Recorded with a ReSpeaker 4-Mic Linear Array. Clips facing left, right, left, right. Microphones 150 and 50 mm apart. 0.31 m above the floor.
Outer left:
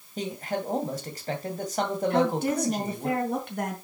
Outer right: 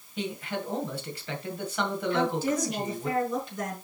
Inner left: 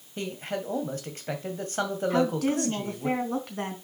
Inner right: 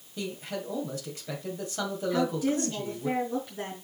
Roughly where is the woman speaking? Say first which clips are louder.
Outer left 2 dB, inner left 1 dB; left.